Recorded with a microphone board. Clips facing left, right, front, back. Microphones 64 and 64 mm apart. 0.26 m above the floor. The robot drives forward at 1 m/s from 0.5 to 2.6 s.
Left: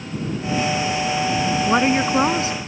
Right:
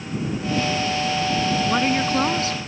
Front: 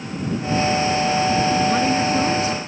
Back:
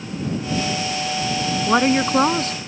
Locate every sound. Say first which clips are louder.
1.7 s a woman speaking: left 3 dB, back 1 dB; 150° left; by 2.6 s 160° left